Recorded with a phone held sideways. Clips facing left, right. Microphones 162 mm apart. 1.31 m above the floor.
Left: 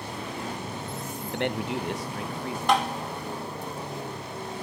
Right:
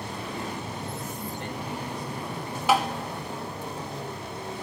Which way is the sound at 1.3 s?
70° left (ahead or behind).